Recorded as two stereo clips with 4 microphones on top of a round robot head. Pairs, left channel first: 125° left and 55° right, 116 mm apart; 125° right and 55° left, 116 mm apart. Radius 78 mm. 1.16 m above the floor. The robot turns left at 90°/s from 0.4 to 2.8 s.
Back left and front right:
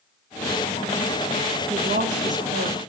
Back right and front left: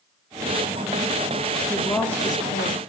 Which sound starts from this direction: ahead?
A woman speaking, at 1.7 s.